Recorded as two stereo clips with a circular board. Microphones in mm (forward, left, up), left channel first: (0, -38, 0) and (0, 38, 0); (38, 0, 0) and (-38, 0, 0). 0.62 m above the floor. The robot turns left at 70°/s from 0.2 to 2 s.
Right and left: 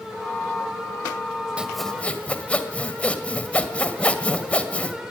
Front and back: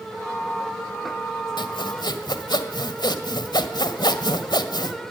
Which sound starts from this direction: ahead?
Sawing, at 1.6 s.